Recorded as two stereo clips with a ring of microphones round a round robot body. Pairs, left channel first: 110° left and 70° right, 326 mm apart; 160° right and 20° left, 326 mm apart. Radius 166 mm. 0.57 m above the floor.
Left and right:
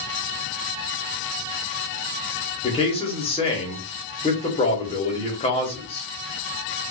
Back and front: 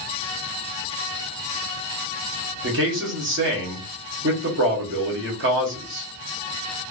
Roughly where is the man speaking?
Ahead left.